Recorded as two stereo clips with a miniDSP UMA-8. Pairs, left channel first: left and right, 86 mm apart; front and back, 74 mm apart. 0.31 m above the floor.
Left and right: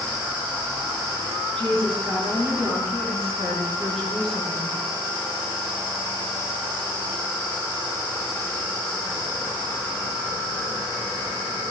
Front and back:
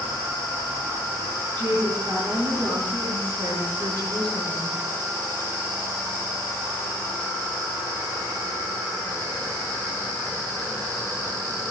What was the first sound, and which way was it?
A woman speaking, 170° left.